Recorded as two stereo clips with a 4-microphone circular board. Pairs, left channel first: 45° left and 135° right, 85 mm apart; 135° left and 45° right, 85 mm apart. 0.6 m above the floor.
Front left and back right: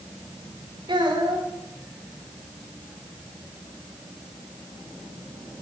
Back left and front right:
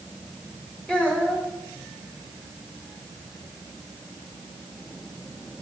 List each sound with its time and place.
0.9 s a child speaking: 150° right, 2.0 m